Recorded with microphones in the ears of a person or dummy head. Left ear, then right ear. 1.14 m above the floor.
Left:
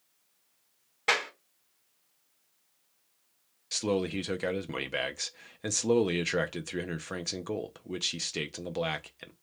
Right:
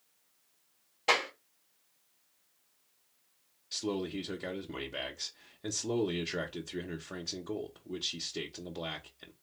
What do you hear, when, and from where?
1.1 s a clap: 25° left (ahead or behind), 2 m
3.7 s a man speaking: 50° left (ahead or behind), 0.5 m